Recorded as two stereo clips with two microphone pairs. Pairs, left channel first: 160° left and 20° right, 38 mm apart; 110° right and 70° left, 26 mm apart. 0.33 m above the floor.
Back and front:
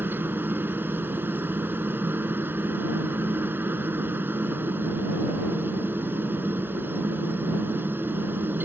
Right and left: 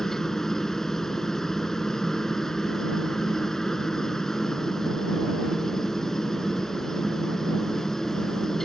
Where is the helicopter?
40° right.